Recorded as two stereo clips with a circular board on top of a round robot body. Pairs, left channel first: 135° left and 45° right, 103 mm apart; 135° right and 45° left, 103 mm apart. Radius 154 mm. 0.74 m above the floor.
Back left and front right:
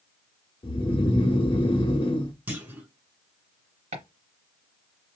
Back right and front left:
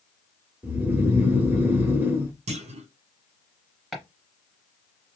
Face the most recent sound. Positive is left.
turn(degrees=-45)